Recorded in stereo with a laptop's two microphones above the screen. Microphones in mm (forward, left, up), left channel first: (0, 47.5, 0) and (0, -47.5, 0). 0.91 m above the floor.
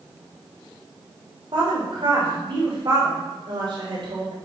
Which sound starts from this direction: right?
A woman speaking, at 1.5 s.